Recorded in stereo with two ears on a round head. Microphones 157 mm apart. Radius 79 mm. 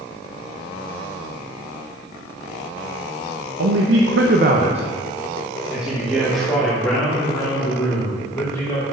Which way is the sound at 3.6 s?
80° right.